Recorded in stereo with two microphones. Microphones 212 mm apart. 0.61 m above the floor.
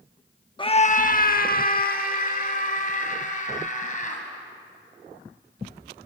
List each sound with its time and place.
0.6 s a scream: 25° left (ahead or behind), 0.8 m; by 4.2 s 40° left (ahead or behind), 4 m